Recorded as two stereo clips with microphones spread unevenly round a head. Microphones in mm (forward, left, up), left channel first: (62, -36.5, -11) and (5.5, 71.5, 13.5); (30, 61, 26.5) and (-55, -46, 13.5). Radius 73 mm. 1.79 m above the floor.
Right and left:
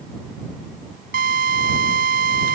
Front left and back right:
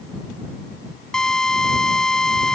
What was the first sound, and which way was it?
A drill, 135° left.